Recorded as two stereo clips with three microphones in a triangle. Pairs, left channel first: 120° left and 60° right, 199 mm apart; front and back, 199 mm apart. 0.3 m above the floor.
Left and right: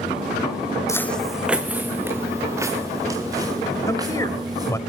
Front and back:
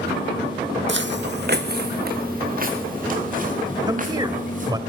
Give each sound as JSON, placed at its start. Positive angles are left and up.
{"t": 0.9, "sound": "footsteps", "azimuth_deg": -170, "distance_m": 0.7}
{"t": 3.9, "sound": "a man speaking", "azimuth_deg": 160, "distance_m": 1.3}